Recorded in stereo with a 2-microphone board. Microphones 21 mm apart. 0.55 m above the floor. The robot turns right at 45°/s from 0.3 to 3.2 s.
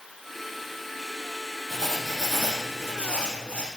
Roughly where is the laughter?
I don't hear laughter.